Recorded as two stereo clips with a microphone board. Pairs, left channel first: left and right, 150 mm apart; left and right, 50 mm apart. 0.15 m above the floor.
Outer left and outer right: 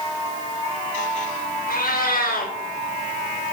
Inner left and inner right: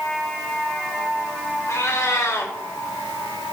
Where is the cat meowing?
70° left (ahead or behind), 3 m.